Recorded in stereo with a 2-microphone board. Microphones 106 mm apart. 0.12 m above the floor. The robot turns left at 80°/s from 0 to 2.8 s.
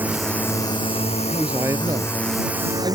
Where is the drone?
15° right (ahead or behind); by 3.0 s 35° right (ahead or behind).